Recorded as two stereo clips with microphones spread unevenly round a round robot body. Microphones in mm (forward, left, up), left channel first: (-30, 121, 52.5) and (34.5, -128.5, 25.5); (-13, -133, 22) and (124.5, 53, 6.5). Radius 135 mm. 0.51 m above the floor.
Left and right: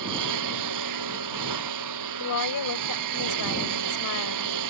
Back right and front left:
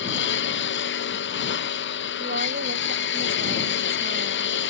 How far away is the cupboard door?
I don't hear a cupboard door.